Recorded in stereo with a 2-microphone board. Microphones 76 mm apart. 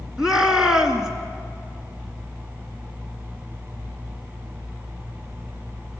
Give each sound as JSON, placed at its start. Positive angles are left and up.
{"t": 0.2, "sound": "a shout", "side_deg": -10, "distance_m": 2.0}